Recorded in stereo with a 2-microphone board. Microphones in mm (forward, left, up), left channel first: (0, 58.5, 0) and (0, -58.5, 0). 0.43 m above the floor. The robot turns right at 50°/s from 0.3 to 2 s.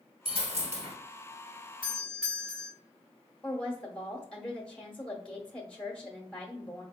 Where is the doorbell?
10° right (ahead or behind), 1.6 m; by 2.7 s 5° right (ahead or behind), 1.6 m.